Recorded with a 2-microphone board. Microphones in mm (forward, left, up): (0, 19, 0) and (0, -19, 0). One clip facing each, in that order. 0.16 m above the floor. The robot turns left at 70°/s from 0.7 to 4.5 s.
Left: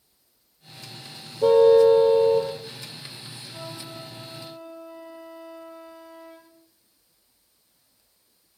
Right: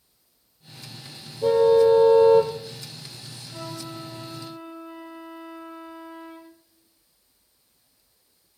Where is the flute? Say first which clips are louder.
Right 3 dB; 10° right (ahead or behind), 1.4 m; by 6.6 s 20° right (ahead or behind), 1.4 m.